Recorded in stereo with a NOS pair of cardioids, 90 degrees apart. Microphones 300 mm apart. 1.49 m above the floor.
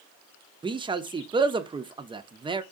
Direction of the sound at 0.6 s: 15° right.